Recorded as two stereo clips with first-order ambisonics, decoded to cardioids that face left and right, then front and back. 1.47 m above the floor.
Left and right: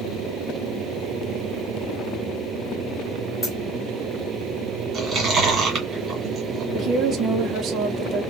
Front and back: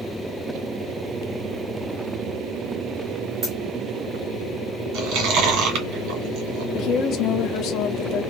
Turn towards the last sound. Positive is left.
turn(degrees=-35)